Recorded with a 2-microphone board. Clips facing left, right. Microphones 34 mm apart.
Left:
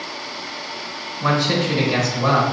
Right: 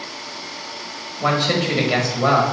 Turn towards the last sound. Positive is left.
turn(degrees=-45)  # may be behind; listen again after turning